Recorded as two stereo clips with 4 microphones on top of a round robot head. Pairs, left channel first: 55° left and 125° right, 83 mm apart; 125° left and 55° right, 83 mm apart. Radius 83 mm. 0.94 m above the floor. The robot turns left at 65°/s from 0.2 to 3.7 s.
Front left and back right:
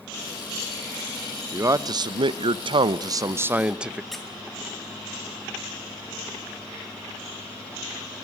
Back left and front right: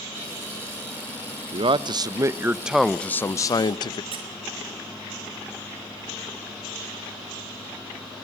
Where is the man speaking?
65° right, 0.6 m; by 4.0 s 155° left, 0.6 m.